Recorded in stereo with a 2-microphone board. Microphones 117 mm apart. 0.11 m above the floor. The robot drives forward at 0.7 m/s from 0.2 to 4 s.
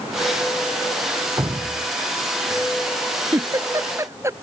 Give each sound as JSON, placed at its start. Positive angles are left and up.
{"t": 1.4, "sound": "dripping", "side_deg": -35}
{"t": 3.3, "sound": "a giggle", "side_deg": -30}